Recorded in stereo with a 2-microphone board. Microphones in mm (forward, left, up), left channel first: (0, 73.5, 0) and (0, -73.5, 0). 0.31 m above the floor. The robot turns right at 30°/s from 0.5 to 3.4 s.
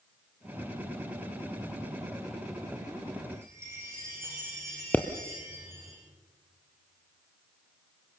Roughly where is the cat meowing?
I don't hear a cat meowing.